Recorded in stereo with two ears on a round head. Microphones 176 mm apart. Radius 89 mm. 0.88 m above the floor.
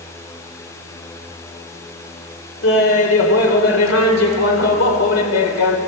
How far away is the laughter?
About 3.5 m.